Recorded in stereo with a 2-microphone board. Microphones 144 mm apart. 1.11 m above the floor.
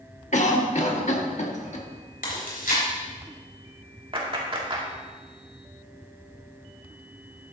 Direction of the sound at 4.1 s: 35° right (ahead or behind).